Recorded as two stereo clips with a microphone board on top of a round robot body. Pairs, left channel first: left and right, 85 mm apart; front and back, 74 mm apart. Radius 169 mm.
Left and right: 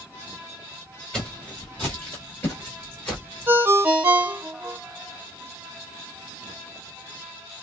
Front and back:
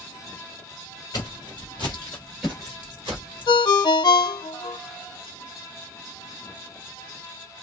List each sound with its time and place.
1.1 s footsteps: 10° left, 1.2 m; by 3.6 s 170° left, 1.2 m
3.5 s a ringtone: 25° right, 0.6 m